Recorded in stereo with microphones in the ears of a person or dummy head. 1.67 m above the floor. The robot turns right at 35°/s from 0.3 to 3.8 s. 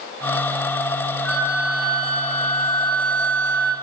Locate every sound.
1.2 s a flute: 5° left, 3 m; by 3.8 s 95° left, 3 m